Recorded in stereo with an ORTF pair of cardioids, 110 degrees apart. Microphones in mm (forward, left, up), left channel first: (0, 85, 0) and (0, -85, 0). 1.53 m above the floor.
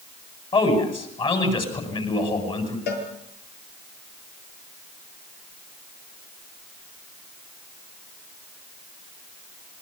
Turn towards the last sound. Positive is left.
turn(degrees=65)